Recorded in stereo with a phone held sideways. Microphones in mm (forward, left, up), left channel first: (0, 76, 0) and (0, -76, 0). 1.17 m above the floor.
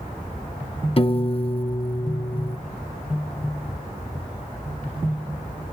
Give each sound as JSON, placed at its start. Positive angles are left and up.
{"t": 1.0, "sound": "a piano", "side_deg": 40}